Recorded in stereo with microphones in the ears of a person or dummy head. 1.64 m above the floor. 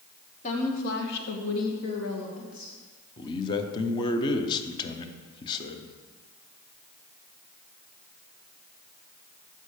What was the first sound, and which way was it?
A woman speaking, 40° left (ahead or behind).